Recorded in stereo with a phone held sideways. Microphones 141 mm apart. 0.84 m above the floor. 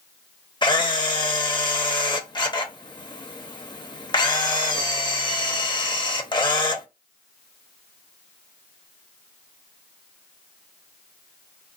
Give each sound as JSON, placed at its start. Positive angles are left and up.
{"t": 0.6, "sound": "a camera shutter", "side_deg": 35, "distance_m": 0.6}